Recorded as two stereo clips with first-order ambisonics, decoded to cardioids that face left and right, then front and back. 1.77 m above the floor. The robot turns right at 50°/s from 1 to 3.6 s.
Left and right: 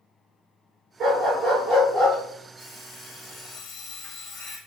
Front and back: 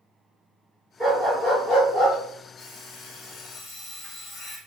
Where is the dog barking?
110° right, 1.8 m; by 2.2 s 50° right, 1.8 m.